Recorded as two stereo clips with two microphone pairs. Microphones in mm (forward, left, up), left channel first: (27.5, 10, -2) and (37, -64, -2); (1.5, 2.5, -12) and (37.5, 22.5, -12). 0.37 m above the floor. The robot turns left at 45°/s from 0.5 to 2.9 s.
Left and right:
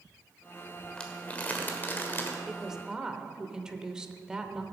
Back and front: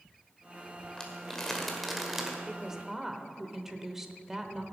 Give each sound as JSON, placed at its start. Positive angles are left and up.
{"t": 1.0, "sound": "crumpling", "azimuth_deg": 160, "distance_m": 1.4}
{"t": 2.5, "sound": "a woman speaking", "azimuth_deg": -15, "distance_m": 0.8}